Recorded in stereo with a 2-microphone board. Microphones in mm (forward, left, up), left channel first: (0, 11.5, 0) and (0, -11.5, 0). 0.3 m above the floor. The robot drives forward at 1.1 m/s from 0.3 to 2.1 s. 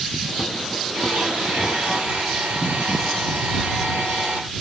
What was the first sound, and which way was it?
A blender, 75° right (ahead or behind).